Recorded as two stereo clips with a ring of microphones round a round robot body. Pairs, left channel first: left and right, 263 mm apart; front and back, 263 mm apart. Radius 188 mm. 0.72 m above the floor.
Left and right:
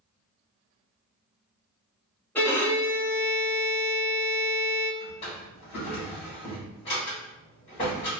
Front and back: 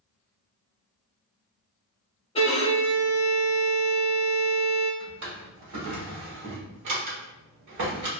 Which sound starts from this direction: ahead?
A violin, at 2.4 s.